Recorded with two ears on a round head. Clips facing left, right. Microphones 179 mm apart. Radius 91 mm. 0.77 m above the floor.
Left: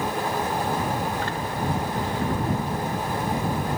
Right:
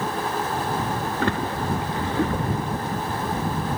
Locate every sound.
1.2 s a splash: 50° right (ahead or behind)